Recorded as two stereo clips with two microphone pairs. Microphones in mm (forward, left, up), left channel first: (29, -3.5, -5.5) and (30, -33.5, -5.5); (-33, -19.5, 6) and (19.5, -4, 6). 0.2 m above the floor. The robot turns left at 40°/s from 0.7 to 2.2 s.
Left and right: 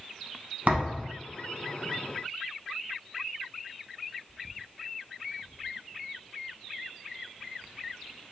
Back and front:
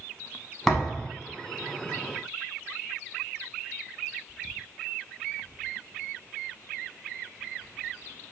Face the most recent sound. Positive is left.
turn(degrees=-135)